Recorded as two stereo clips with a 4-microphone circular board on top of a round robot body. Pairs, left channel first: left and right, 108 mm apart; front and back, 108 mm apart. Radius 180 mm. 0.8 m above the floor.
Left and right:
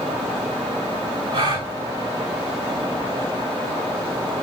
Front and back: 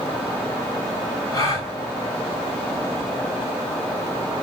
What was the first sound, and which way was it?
A gasp, 55° right.